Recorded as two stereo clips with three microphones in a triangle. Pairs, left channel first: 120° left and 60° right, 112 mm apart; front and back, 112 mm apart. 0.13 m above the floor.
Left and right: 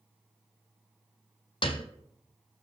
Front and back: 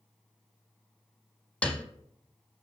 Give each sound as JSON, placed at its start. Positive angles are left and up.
{"t": 1.6, "sound": "a piano", "azimuth_deg": 80, "distance_m": 0.9}